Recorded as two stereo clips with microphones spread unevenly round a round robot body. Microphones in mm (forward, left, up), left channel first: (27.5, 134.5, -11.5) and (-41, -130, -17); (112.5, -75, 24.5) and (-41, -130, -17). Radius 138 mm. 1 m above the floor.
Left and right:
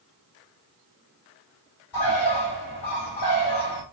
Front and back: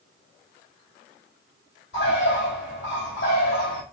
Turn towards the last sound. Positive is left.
turn(degrees=65)